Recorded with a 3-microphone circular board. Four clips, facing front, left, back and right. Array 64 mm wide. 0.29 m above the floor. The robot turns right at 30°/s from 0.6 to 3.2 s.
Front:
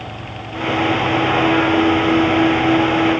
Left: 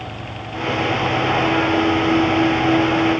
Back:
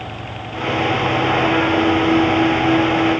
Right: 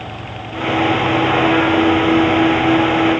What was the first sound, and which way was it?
Only background noise.